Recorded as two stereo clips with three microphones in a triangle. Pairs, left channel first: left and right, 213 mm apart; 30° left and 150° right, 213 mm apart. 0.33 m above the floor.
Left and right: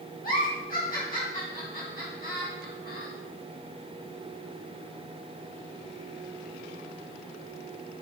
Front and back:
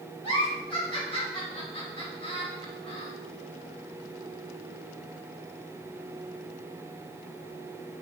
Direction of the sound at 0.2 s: 80° left.